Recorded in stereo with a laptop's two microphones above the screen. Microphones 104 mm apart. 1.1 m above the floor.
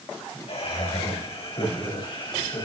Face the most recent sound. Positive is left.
turn(degrees=50)  # may be behind; listen again after turning